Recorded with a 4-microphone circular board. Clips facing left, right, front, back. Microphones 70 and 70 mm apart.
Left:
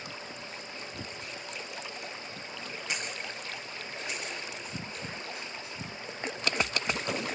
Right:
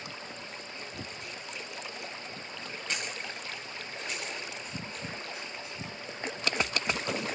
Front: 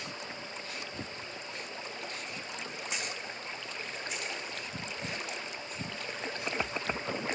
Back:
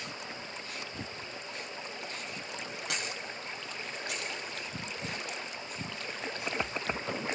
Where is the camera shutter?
170° left, 8 m.